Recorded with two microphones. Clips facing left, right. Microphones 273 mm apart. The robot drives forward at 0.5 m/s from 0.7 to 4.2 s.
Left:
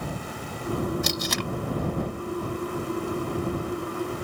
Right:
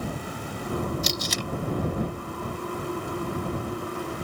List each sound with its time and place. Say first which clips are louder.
1.0 s tape being pulled: left 2 dB; 60° left (ahead or behind); by 1.5 s 70° left (ahead or behind)